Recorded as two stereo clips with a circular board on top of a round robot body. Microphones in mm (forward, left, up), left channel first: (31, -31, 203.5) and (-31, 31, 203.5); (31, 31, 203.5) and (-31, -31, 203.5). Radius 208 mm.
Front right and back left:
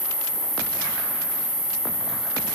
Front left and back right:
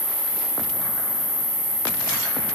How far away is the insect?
About 1.4 m.